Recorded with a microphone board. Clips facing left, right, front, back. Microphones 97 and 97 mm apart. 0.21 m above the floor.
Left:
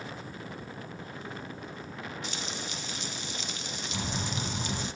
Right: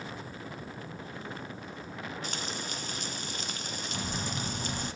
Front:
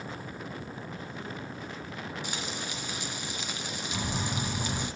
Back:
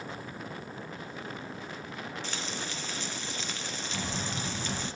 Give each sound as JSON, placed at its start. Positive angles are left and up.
{"t": 2.2, "sound": "frying", "azimuth_deg": -75, "distance_m": 1.1}
{"t": 3.9, "sound": "a bird", "azimuth_deg": 55, "distance_m": 9.0}